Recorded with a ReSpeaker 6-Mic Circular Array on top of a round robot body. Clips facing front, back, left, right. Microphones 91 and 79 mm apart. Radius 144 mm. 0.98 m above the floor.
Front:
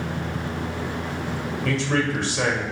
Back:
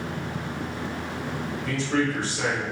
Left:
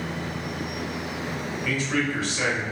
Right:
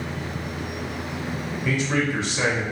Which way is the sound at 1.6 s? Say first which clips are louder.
Front 1 dB, right 3 dB; 25° right.